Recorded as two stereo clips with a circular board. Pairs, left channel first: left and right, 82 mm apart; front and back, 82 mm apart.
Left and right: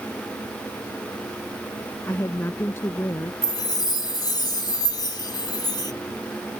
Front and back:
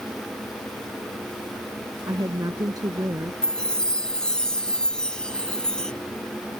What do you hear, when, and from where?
2.1 s a woman speaking: 145° left
3.4 s a chime: 80° left